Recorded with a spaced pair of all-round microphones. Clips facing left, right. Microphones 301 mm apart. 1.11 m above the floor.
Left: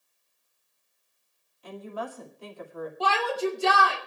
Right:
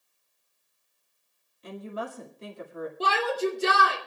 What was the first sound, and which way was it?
A woman speaking, 25° right (ahead or behind).